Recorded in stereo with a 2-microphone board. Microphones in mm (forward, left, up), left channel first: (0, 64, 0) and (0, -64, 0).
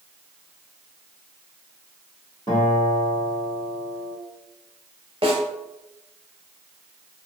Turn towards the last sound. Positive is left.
turn(degrees=-50)  # may be behind; listen again after turning